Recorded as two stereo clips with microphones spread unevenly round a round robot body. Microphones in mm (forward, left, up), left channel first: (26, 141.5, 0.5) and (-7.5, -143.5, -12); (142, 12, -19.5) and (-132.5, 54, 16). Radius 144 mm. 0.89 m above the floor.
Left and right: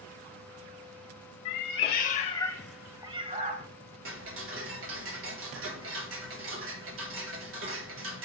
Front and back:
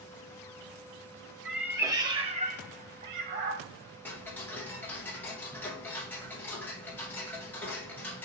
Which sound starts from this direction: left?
A cat meowing, at 1.4 s.